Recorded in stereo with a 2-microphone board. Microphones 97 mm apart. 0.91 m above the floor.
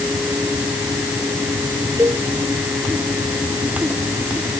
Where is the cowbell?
35° right (ahead or behind).